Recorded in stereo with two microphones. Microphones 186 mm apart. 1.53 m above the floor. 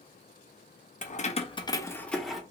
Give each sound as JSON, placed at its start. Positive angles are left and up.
{"t": 1.0, "sound": "keys jangling", "side_deg": 45, "distance_m": 0.5}